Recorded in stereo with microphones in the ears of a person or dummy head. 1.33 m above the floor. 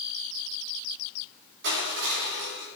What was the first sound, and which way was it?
Crushing, 65° right (ahead or behind).